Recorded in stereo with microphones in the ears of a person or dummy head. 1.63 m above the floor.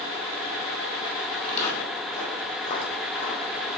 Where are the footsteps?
40° left (ahead or behind), 2.5 m; by 3.7 s 55° left (ahead or behind), 5 m.